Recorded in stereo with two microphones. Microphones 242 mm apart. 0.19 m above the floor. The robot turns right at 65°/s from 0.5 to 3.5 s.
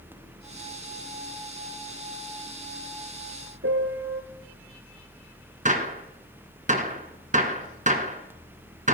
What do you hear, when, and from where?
3.6 s a piano: 70° right (ahead or behind), 1.5 m
5.7 s a gunshot: 35° right (ahead or behind), 1.5 m